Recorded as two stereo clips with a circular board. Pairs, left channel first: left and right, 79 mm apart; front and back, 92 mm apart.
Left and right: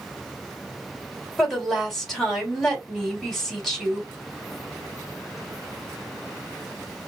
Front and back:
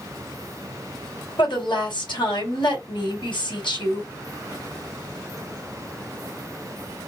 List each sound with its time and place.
1.4 s a woman speaking: 5° left, 3 m